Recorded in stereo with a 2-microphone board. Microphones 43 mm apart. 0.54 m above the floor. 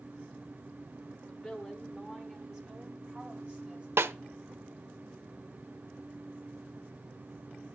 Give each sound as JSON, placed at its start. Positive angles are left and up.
{"t": 1.3, "sound": "a woman speaking", "side_deg": 15, "distance_m": 1.3}
{"t": 4.0, "sound": "a snare drum", "side_deg": -80, "distance_m": 0.6}